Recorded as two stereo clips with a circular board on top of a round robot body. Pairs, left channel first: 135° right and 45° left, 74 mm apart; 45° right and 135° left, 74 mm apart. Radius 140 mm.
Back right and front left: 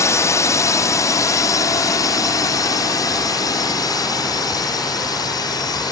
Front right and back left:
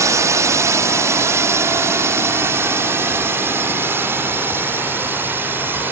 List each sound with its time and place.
0.0 s a drone: straight behind; by 5.9 s 165° right